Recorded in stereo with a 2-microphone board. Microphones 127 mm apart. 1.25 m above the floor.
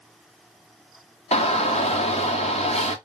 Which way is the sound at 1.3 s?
55° left (ahead or behind).